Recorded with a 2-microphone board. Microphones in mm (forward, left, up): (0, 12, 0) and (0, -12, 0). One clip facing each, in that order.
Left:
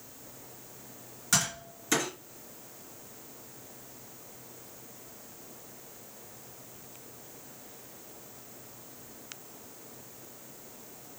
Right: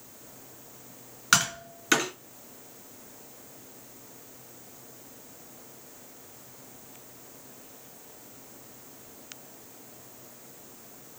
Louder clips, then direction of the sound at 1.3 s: Right 6 dB; 50° right (ahead or behind).